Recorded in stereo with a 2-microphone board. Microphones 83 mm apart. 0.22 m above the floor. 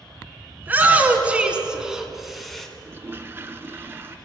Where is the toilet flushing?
30° right (ahead or behind), 0.9 m.